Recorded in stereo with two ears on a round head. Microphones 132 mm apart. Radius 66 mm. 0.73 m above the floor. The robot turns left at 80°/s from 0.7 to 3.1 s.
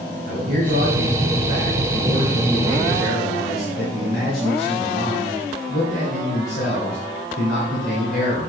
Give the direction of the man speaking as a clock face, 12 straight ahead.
2 o'clock.